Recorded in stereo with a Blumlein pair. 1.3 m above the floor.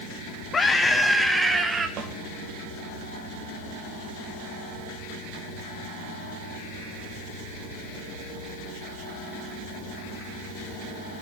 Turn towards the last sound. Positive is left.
turn(degrees=-30)